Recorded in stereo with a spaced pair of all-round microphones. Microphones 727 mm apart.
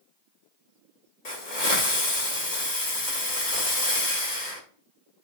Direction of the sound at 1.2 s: 75° left (ahead or behind).